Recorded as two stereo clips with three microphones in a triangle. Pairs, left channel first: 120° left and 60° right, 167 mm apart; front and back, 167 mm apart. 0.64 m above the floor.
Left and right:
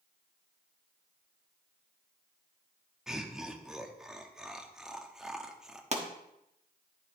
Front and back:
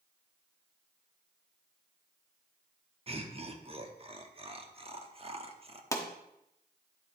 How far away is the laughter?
About 0.9 m.